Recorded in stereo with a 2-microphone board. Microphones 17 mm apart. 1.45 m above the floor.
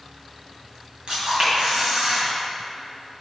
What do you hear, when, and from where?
1.1 s a camera shutter: 60° right (ahead or behind), 2.5 m